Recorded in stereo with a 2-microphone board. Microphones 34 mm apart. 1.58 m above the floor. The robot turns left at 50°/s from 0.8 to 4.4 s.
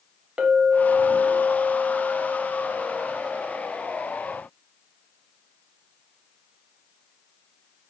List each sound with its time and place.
0.4 s a clink: 35° right, 0.7 m; by 3.6 s straight behind, 0.7 m